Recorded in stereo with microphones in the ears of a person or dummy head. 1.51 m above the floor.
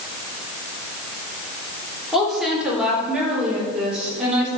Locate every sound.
2.1 s a woman speaking: 5° right (ahead or behind), 3.5 m; by 4.5 s 10° right (ahead or behind), 6 m